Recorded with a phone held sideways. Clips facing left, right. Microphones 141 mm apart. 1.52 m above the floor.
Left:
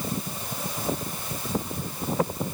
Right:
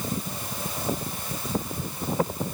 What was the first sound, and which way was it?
Only background noise.